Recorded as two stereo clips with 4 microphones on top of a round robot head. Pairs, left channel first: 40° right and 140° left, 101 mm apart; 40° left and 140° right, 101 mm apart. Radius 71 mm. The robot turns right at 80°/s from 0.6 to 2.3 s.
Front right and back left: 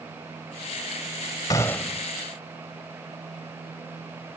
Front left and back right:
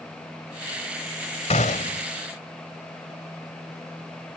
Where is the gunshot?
15° left; by 2.1 s 60° left.